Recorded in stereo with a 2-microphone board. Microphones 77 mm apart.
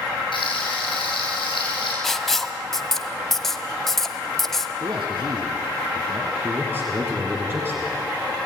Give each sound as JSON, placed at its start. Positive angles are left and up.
{"t": 0.3, "sound": "frying", "side_deg": 85, "distance_m": 9.5}
{"t": 2.0, "sound": "writing", "side_deg": 5, "distance_m": 1.3}
{"t": 4.8, "sound": "a man speaking", "side_deg": -65, "distance_m": 2.0}
{"t": 6.4, "sound": "a man speaking", "side_deg": -30, "distance_m": 3.5}